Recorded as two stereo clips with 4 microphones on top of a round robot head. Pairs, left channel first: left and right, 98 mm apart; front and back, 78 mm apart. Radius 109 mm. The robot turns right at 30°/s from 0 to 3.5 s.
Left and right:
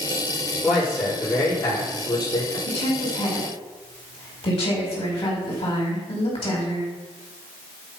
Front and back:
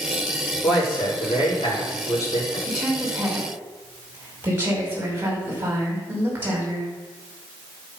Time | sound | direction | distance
0.6 | a man speaking | 5° right | 6.5 m
2.7 | a woman speaking | 90° left | 5 m